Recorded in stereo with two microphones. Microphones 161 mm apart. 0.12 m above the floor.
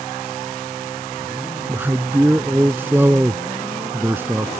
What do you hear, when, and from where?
1.7 s a man speaking: 15° right (ahead or behind)